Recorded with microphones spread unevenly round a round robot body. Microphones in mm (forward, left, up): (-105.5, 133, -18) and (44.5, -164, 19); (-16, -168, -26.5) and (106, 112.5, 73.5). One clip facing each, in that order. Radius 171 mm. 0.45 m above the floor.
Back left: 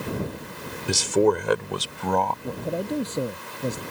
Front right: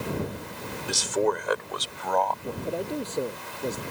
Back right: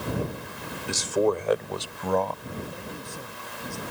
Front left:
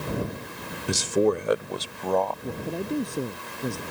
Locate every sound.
0.9 s a man speaking: 115° left; by 2.3 s 170° left
2.4 s a man speaking: 115° left